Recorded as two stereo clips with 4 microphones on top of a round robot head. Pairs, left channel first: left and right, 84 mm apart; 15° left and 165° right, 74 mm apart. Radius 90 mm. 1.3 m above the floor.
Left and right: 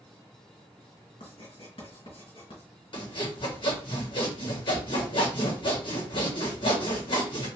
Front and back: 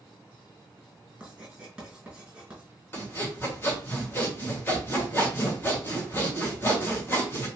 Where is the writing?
115° left, 2.5 m.